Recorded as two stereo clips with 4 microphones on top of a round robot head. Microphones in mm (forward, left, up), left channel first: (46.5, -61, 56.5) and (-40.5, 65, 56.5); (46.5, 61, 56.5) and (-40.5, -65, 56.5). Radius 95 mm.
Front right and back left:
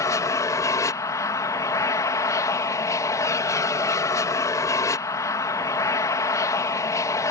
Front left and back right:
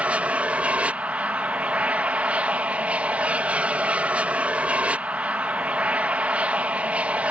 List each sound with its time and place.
0.0 s an aircraft: 60° right